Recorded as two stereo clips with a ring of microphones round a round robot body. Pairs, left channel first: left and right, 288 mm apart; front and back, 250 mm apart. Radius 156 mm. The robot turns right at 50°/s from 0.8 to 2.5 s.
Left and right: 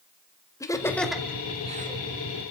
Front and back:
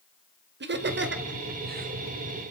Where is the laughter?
165° left, 1.9 m; by 2.0 s 135° right, 1.9 m.